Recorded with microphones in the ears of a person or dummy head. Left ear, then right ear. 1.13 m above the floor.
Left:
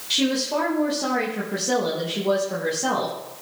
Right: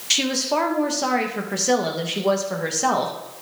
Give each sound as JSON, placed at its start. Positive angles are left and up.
{"t": 0.1, "sound": "a woman speaking", "side_deg": -50, "distance_m": 1.4}